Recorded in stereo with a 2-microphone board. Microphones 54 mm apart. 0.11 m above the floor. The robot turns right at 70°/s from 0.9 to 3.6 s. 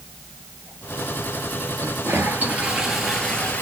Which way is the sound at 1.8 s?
85° right.